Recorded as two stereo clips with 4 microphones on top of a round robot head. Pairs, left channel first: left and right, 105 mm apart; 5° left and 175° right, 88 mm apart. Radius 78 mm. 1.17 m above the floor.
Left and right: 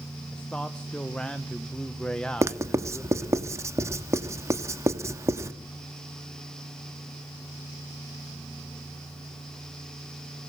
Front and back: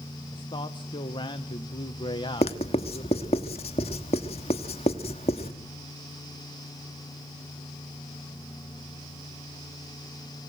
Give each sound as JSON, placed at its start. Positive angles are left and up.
{"t": 0.3, "sound": "a man speaking", "azimuth_deg": 10, "distance_m": 1.2}
{"t": 2.4, "sound": "writing", "azimuth_deg": -25, "distance_m": 1.2}